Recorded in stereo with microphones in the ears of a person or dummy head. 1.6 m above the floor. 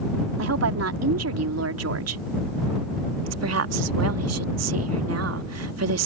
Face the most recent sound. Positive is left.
turn(degrees=-80)